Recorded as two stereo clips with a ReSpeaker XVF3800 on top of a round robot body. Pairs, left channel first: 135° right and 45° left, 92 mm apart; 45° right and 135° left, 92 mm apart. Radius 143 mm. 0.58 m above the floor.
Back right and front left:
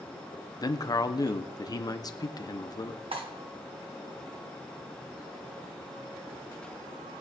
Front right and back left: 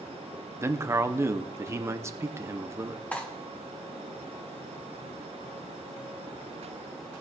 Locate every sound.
0.6 s a man speaking: 170° right, 1.0 m
3.1 s cutlery clinking: 30° left, 1.7 m